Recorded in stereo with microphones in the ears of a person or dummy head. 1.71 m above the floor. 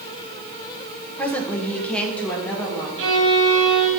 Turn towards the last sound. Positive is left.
turn(degrees=-70)  # may be behind; listen again after turning